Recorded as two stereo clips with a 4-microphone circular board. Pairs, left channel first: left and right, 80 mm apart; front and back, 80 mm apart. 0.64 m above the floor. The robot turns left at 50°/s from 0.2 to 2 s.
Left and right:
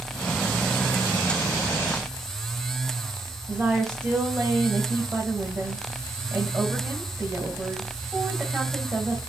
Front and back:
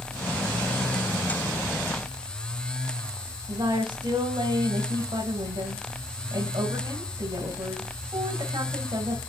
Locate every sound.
3.5 s a woman speaking: 165° right, 4 m